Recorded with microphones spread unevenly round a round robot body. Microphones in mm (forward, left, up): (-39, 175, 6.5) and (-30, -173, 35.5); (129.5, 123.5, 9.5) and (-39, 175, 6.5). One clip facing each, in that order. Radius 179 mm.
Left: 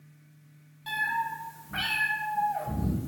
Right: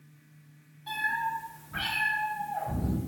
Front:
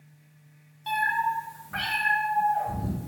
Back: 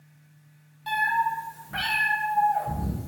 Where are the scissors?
I don't hear scissors.